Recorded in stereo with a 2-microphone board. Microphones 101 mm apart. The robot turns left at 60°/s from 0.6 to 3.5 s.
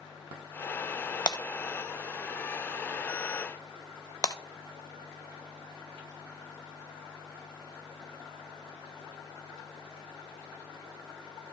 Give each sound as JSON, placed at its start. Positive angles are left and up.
{"t": 1.3, "sound": "breaking glass", "side_deg": 45, "distance_m": 0.7}
{"t": 4.2, "sound": "breaking glass", "side_deg": 40, "distance_m": 0.7}